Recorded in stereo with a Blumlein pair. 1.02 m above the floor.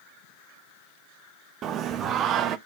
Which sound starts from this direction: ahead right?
Singing, at 1.6 s.